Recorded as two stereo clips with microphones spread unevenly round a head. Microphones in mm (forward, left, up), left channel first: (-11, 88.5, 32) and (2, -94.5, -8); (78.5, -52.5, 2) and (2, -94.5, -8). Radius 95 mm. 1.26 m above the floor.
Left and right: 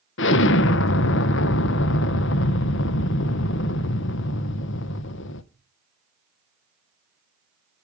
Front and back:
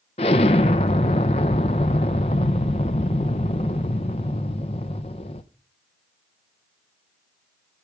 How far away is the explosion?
About 0.6 m.